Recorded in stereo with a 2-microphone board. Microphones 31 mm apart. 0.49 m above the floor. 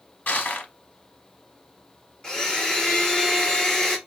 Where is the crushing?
70° left (ahead or behind), 0.8 m.